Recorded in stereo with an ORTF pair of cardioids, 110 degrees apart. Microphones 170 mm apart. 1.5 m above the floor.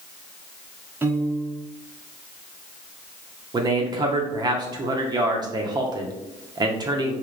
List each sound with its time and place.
1.0 s a piano: 10° right, 0.7 m
3.5 s a man speaking: 25° right, 0.6 m